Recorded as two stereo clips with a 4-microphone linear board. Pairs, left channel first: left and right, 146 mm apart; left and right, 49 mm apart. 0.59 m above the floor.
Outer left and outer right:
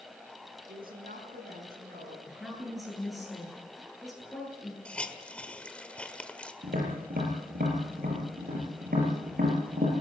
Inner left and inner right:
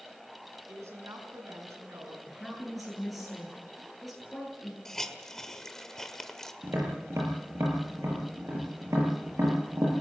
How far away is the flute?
I don't hear a flute.